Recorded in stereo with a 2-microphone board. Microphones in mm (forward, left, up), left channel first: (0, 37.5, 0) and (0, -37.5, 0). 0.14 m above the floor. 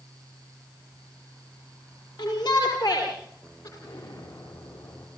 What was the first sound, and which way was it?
A shout, 65° left (ahead or behind).